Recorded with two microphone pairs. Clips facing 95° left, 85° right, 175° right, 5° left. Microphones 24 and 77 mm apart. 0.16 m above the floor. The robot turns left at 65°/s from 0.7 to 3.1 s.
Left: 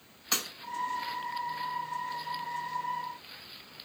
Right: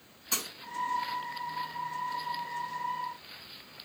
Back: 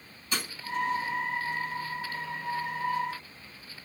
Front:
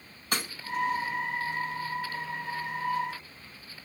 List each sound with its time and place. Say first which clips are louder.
0.3 s breaking glass: left 2 dB, front 1 dB; 40° left, 5 m